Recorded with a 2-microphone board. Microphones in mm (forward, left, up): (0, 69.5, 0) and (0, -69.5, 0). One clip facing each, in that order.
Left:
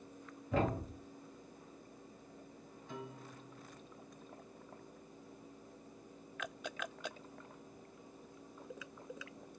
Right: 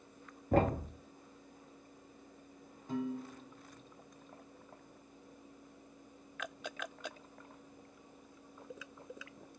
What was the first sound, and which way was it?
A thud, 50° right (ahead or behind).